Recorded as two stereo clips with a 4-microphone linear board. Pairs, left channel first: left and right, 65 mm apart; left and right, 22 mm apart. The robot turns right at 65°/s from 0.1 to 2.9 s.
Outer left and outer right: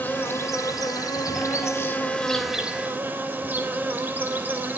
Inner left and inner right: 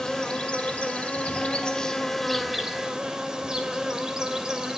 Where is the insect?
30° left, 2.5 m; by 4.8 s 150° right, 2.5 m.